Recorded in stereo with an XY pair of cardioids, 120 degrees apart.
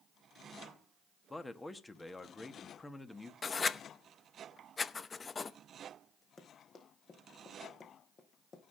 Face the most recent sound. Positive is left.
turn(degrees=40)